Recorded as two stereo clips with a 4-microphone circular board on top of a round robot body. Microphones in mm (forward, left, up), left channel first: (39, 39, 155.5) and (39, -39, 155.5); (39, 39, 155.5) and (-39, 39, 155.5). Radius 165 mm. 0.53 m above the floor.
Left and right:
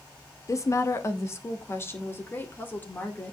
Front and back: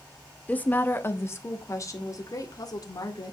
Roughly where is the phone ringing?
I don't hear a phone ringing.